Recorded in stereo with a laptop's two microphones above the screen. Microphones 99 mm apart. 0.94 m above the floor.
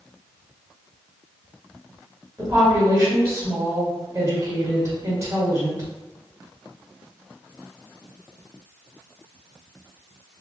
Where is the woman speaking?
35° right (ahead or behind), 1.8 m.